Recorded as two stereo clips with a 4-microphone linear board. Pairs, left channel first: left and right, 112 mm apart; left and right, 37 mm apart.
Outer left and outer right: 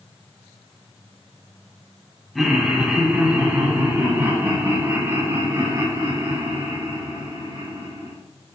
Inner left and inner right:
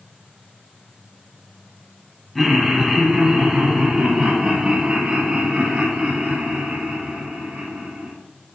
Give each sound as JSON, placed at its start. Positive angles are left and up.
{"t": 2.4, "sound": "laughter", "side_deg": 0, "distance_m": 1.8}